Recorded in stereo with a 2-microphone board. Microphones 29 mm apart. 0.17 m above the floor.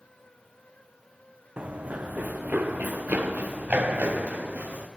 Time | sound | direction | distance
1.6 | running footsteps | 45° right (ahead or behind) | 0.7 m